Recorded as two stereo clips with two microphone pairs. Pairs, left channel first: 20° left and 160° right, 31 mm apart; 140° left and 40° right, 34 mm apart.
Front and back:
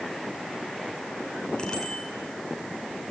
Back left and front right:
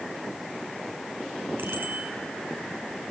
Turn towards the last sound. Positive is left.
turn(degrees=-45)